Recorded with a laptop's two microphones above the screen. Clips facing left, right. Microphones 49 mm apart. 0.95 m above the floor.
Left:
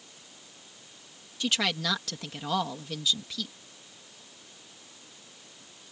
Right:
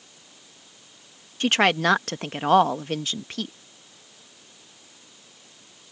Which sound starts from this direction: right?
A woman speaking, at 1.4 s.